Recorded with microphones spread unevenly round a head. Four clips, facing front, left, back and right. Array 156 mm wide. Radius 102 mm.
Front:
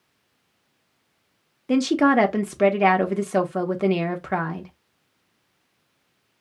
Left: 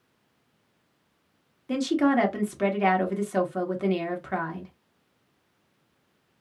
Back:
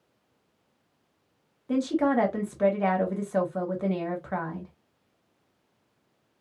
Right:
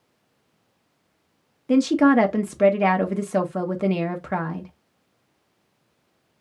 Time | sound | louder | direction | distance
1.7 | a woman speaking | right 6 dB, front 6 dB | 20° right | 1.3 m